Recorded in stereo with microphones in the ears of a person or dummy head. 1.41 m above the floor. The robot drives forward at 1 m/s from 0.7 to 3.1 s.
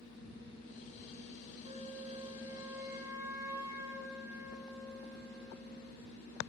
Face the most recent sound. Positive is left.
turn(degrees=-15)  # may be behind; listen again after turning